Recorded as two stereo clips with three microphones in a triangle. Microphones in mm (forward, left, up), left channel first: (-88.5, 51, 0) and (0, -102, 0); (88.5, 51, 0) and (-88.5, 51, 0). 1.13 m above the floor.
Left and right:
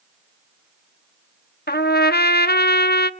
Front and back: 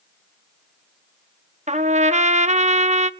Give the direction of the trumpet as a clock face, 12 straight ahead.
8 o'clock.